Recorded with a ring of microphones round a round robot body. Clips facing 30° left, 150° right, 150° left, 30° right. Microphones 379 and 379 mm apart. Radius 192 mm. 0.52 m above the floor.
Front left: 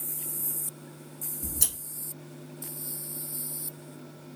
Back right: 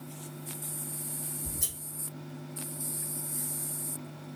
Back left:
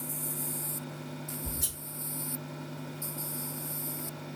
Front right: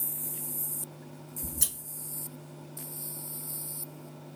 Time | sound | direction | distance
1.4 | scissors | straight ahead | 1.1 m